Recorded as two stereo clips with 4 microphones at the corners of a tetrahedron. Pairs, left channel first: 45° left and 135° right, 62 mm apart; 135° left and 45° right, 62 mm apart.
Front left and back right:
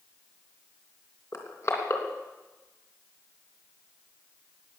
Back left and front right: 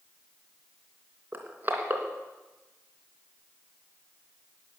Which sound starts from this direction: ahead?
Crushing, at 1.3 s.